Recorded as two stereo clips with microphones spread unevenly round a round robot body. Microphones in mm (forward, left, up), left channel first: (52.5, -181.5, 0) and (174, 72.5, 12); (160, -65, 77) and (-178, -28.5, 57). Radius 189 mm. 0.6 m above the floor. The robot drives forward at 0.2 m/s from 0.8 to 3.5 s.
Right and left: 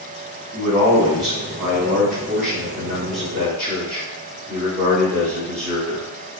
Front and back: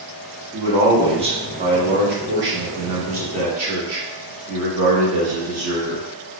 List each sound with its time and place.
0.5 s a man speaking: 115° left, 0.8 m; by 6.1 s 160° left, 1.0 m